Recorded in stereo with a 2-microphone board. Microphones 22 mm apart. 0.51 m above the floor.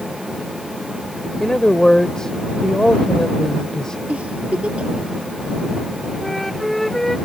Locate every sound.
1.4 s a man speaking: 30° left (ahead or behind)
4.1 s a giggle: 75° right (ahead or behind)
6.2 s a flute: 10° left (ahead or behind)